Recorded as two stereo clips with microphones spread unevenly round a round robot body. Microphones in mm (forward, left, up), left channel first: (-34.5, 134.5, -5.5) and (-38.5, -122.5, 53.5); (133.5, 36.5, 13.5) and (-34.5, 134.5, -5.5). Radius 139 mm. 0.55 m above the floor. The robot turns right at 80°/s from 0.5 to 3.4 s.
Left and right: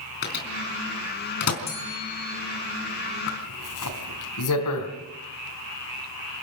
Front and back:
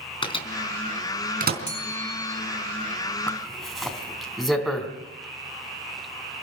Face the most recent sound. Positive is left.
turn(degrees=60)